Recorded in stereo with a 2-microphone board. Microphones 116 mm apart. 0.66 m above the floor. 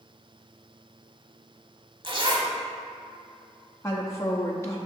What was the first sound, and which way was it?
A zipper, 45° right (ahead or behind).